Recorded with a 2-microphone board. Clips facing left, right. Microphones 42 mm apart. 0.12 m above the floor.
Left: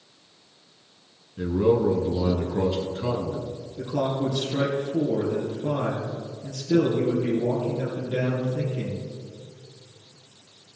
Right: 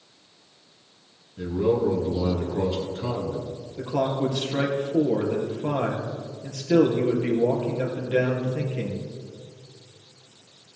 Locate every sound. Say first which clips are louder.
1.4 s a man speaking: left 2 dB; 20° left (ahead or behind), 1.9 m
3.8 s a man speaking: right 1 dB; 40° right (ahead or behind), 3 m